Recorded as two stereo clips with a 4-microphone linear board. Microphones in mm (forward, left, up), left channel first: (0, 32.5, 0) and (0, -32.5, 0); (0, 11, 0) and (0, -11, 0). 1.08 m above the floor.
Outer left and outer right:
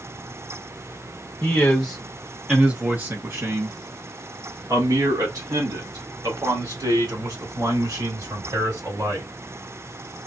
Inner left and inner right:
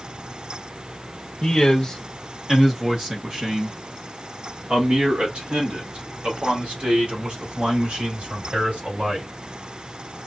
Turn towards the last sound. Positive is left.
turn(degrees=-85)